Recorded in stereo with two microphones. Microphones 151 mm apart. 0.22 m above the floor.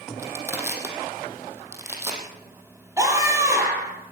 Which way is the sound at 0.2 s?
15° right (ahead or behind).